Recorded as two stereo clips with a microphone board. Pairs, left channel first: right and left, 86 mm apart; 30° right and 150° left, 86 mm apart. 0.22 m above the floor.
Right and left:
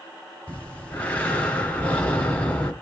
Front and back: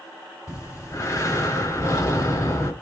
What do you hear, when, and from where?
0.5 s breathing: 35° right, 1.6 m